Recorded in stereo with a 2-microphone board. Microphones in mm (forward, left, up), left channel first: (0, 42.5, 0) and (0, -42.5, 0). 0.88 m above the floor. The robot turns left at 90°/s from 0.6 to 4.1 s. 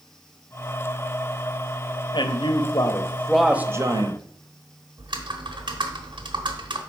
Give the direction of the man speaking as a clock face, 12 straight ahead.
8 o'clock.